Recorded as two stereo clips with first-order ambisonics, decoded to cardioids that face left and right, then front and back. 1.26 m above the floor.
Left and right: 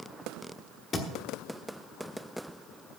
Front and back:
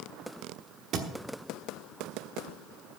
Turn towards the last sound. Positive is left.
turn(degrees=145)